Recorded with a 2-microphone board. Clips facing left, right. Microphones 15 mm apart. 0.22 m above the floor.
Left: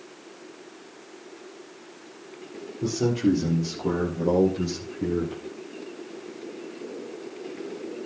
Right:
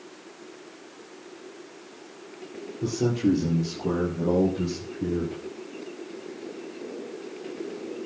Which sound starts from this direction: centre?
A man speaking, at 2.8 s.